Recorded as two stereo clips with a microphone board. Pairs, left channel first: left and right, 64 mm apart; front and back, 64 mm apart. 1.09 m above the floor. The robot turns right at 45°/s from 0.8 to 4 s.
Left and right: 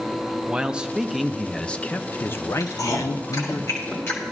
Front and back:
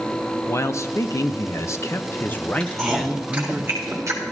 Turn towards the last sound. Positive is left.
turn(degrees=140)